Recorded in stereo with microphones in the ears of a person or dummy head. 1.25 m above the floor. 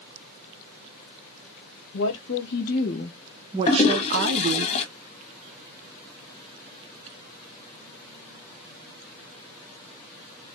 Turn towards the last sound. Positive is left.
turn(degrees=35)  # may be behind; listen again after turning